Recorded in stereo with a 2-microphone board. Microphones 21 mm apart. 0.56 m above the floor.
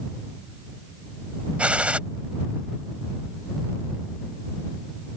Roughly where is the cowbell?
I don't hear a cowbell.